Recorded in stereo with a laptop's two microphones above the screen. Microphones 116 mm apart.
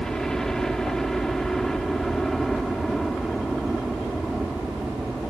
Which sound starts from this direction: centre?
A helicopter, at 0.0 s.